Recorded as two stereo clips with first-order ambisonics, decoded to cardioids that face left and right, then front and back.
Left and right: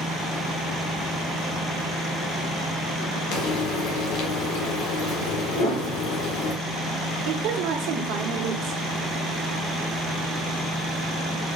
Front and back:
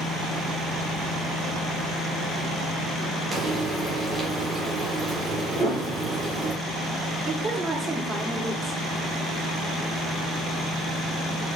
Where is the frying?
105° left, 1.5 m.